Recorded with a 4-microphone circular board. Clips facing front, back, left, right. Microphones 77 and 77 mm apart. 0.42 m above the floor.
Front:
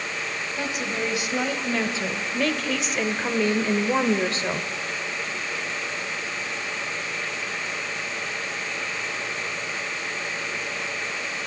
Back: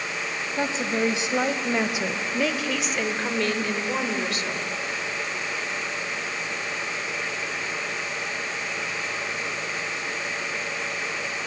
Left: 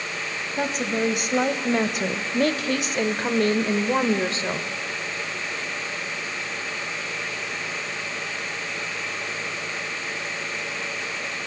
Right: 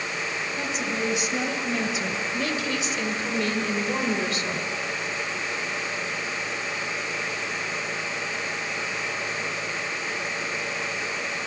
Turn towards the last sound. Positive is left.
turn(degrees=35)